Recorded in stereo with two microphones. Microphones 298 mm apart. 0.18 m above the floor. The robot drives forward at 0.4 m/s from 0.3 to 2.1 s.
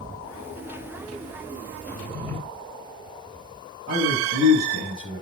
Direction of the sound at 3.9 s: 55° right (ahead or behind).